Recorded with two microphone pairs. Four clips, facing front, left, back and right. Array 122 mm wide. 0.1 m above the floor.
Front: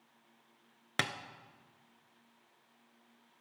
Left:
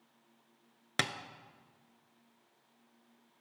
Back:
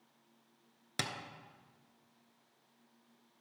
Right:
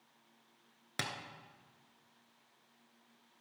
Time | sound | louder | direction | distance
1.0 | tapping | left 6 dB, front 4 dB | 45° left | 0.6 m